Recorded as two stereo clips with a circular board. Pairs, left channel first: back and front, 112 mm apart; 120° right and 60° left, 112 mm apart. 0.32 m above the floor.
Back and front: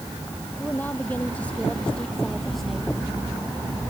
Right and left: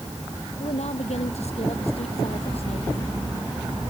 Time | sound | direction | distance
0.6 | a woman speaking | 110° right | ?